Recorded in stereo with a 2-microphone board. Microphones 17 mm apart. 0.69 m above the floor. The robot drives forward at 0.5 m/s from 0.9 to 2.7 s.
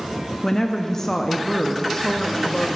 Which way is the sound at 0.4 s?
20° left (ahead or behind).